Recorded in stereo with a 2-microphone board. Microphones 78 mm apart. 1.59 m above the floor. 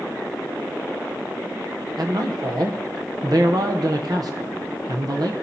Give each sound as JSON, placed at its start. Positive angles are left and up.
{"t": 2.0, "sound": "a man speaking", "side_deg": -60, "distance_m": 0.8}